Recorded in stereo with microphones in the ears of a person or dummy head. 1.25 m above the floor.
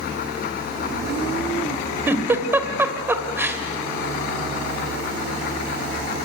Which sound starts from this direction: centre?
A giggle, at 2.1 s.